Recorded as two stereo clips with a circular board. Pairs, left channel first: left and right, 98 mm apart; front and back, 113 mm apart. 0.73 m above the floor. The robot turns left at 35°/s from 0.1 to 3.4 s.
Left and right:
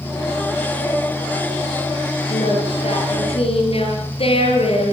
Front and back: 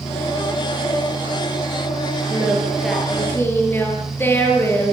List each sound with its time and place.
2.3 s singing: 110° left, 7 m; by 4.9 s 70° left, 7 m